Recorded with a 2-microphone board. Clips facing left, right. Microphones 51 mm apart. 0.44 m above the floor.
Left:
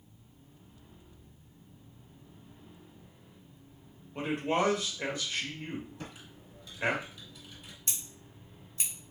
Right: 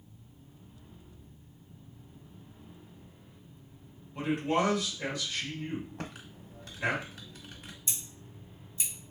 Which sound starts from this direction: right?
Typing on a keyboard, at 6.0 s.